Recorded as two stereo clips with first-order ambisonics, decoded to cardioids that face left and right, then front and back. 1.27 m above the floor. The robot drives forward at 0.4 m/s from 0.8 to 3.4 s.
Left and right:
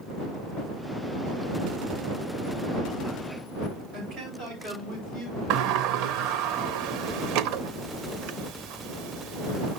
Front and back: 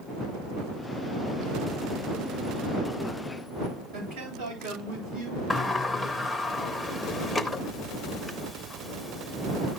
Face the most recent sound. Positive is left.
turn(degrees=-85)